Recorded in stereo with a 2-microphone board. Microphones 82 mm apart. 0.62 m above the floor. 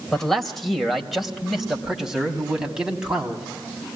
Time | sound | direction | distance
0.1 | a man speaking | 5° left (ahead or behind) | 2.5 m